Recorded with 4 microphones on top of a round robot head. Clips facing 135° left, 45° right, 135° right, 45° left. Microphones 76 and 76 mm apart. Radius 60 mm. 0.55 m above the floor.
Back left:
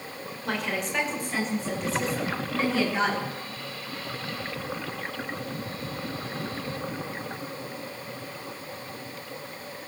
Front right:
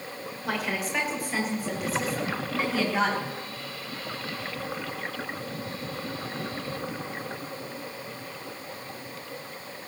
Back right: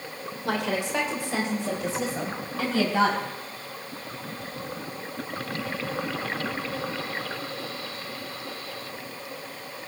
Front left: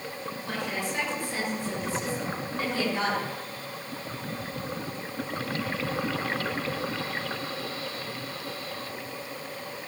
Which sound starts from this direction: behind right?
A woman speaking, at 0.5 s.